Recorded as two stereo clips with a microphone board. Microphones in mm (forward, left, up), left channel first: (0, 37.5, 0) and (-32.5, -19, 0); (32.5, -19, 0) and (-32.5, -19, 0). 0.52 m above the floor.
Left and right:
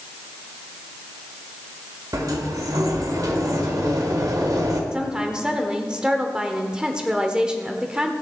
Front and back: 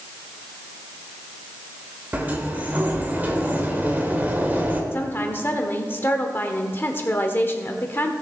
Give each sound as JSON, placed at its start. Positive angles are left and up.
{"t": 2.1, "sound": "a sliding door", "azimuth_deg": -120, "distance_m": 1.5}
{"t": 4.9, "sound": "a woman speaking", "azimuth_deg": -50, "distance_m": 1.2}